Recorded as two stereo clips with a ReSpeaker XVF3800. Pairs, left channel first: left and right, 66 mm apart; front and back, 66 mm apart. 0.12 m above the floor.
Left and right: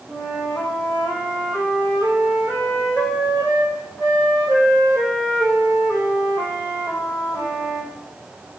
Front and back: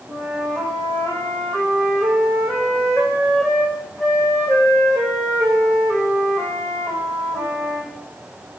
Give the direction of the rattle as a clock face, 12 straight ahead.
I don't hear a rattle.